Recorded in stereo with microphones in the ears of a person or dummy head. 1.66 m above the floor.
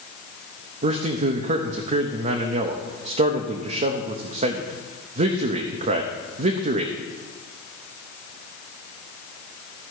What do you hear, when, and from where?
0.8 s a man speaking: 40° right (ahead or behind), 0.7 m